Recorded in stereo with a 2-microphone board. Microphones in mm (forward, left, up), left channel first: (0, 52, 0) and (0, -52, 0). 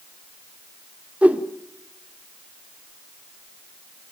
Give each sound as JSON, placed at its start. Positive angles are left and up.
{"t": 1.2, "sound": "a whoosh", "side_deg": -10, "distance_m": 1.3}